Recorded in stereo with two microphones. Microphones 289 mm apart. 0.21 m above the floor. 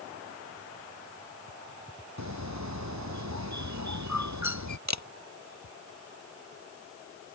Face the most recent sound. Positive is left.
turn(degrees=-70)  # may be behind; listen again after turning